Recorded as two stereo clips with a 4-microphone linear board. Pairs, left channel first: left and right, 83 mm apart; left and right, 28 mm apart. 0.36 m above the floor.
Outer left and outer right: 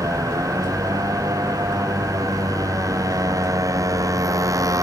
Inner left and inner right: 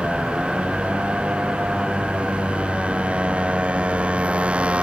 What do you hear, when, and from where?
0.0 s a motorcycle: 45° right (ahead or behind)